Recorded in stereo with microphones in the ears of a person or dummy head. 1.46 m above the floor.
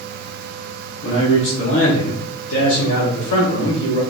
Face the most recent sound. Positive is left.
turn(degrees=85)